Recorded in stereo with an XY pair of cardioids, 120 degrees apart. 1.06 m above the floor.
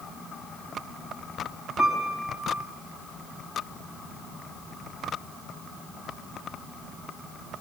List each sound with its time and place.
1.8 s a piano: 25° left, 5 m